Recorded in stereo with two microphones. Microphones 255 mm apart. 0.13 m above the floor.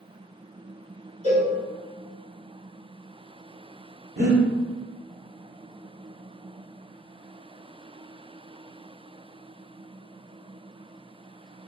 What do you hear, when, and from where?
1.2 s a cowbell: 30° right (ahead or behind), 1.4 m
4.2 s breathing: 40° right (ahead or behind), 1.0 m